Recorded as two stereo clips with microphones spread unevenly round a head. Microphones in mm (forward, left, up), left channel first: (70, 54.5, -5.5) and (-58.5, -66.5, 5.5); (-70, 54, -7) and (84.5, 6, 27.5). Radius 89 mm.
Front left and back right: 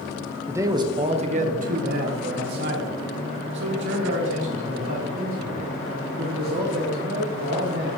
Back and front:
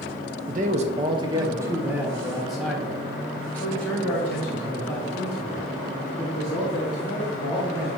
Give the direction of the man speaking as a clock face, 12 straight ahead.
2 o'clock.